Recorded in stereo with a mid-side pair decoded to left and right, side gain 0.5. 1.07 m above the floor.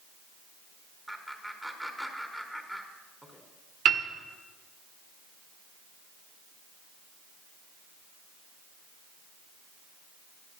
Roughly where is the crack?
No crack in this recording.